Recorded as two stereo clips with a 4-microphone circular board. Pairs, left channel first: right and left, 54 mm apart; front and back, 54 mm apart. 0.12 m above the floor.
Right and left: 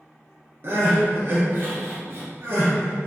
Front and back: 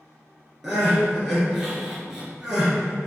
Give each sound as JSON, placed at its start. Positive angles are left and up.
{"t": 0.6, "sound": "crying", "azimuth_deg": 100, "distance_m": 1.2}